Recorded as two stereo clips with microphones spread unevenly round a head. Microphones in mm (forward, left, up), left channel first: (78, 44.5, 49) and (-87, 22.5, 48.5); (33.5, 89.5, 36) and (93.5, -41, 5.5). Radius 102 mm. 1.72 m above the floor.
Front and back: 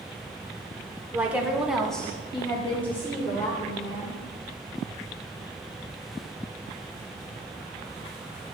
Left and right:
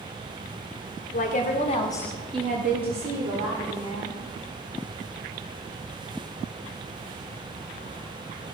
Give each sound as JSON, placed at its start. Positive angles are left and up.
{"t": 1.1, "sound": "a woman speaking", "azimuth_deg": 105, "distance_m": 1.5}